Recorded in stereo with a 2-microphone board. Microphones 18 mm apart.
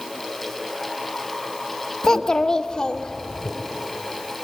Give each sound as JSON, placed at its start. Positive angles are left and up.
{"t": 2.0, "sound": "a child speaking", "side_deg": 40, "distance_m": 1.1}